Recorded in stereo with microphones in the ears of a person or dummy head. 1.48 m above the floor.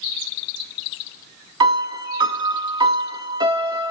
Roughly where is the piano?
Right.